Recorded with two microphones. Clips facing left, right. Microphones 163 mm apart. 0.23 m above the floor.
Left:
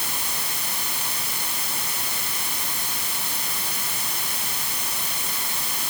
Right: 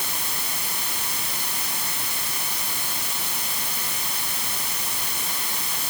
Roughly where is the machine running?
I don't hear a machine running.